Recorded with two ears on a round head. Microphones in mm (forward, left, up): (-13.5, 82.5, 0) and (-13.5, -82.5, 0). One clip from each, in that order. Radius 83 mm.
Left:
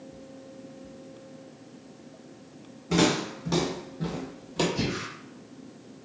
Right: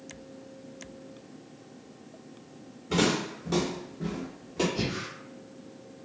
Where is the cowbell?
I don't hear a cowbell.